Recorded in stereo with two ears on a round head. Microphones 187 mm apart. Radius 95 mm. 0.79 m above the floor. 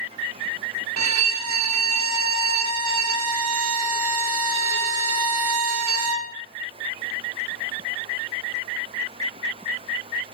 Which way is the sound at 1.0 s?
65° right (ahead or behind).